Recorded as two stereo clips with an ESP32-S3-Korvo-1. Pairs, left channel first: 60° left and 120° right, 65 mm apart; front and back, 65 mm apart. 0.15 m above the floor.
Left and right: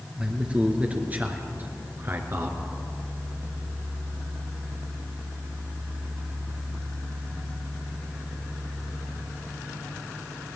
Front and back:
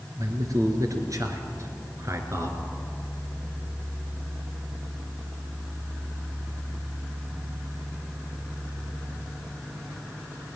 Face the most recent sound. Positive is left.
turn(degrees=-150)